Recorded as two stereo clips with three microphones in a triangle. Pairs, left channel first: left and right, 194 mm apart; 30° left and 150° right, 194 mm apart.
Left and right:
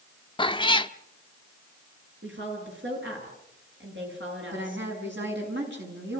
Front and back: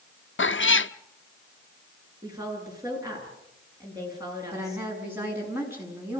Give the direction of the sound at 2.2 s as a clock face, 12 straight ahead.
3 o'clock.